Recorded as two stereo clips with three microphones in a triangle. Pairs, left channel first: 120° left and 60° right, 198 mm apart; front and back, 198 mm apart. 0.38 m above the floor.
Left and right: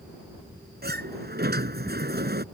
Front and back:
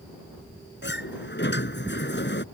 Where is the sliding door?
25° right.